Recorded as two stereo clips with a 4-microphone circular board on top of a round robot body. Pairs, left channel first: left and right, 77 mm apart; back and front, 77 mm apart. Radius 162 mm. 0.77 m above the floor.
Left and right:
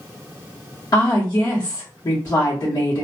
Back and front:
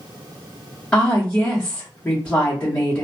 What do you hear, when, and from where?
0.9 s a woman speaking: 110° left, 1.2 m